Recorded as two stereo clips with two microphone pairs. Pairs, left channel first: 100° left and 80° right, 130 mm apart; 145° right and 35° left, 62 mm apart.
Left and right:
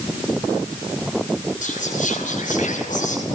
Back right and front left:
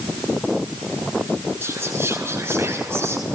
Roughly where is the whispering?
Left.